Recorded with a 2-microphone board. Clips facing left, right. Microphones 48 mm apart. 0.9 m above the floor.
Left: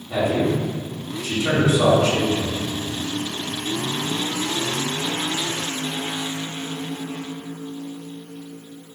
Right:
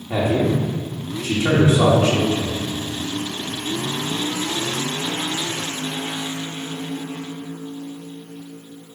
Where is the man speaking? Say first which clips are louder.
Right 1 dB; 35° right (ahead or behind), 1.9 m.